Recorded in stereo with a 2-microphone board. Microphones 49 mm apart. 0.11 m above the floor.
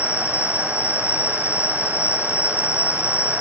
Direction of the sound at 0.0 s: 60° left (ahead or behind).